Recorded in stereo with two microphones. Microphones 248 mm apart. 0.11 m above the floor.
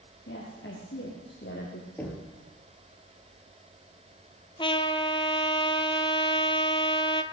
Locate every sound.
0.3 s a woman speaking: 45° left (ahead or behind), 2.5 m; by 1.9 s 40° left (ahead or behind), 3 m
2.0 s knocking: 5° left (ahead or behind), 2 m
4.6 s a trumpet: 20° left (ahead or behind), 0.7 m